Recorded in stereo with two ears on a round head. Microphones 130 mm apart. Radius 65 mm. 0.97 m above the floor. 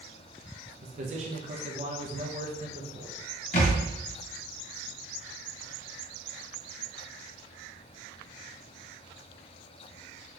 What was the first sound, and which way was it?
A man speaking, 45° right (ahead or behind).